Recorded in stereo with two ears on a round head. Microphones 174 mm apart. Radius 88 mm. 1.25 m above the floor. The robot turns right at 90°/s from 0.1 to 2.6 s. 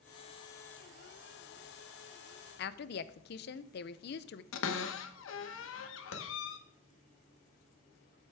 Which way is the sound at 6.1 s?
85° left.